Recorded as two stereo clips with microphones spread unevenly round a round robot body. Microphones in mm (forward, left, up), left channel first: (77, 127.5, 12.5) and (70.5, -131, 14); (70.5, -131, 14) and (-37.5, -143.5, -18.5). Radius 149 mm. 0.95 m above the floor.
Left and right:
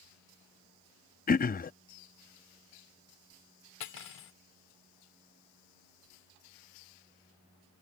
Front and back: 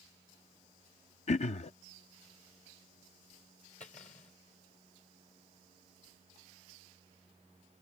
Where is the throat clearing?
30° left.